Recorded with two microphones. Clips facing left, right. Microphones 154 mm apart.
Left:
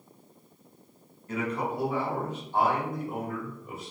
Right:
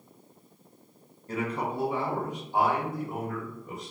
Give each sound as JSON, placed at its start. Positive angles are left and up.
{"t": 1.3, "sound": "a man speaking", "side_deg": -35, "distance_m": 0.9}